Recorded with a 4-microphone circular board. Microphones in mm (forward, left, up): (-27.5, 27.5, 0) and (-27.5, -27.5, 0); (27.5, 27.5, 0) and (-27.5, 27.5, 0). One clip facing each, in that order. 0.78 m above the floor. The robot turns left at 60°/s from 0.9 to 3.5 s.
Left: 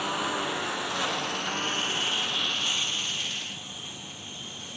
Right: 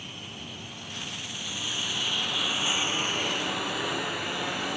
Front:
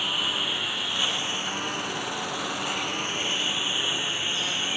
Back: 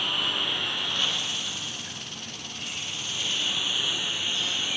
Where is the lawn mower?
85° left; by 4.8 s 70° right.